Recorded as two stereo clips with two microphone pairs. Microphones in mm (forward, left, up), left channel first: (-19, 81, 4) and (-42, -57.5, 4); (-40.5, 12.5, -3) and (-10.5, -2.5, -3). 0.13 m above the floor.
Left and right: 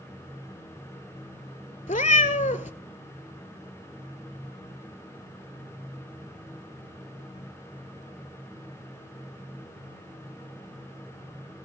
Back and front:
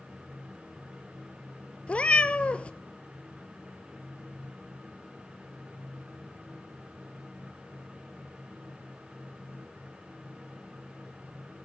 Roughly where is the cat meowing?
Left.